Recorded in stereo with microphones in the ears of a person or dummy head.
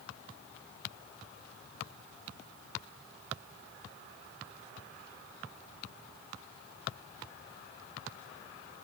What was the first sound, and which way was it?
Only background noise.